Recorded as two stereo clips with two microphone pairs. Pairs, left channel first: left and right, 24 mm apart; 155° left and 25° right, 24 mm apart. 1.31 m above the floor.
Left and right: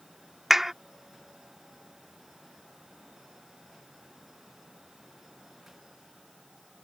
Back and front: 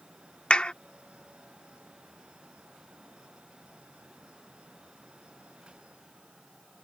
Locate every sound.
0.5 s a clap: 165° right